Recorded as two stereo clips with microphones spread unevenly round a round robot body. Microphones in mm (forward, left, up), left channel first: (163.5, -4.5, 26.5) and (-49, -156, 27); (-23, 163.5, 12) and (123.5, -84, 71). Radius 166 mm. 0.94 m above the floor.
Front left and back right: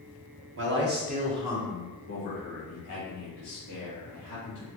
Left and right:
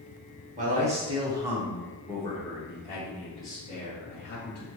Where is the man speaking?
125° right, 1.3 m; by 4.7 s 60° left, 3 m.